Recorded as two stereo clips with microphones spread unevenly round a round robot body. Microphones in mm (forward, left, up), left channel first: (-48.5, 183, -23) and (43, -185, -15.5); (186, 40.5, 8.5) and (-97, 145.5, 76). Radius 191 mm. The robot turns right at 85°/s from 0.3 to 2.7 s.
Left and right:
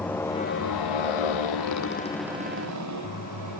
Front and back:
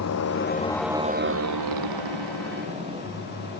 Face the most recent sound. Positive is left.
turn(degrees=-125)